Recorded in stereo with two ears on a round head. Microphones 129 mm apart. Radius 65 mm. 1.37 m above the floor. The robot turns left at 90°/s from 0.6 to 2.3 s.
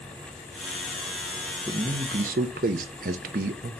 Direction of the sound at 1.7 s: 15° right.